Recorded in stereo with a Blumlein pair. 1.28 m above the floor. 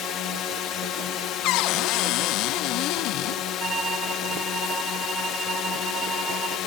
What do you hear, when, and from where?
0.0 s a drone: 30° left
1.4 s a cupboard door: 40° left
3.6 s a violin: 20° right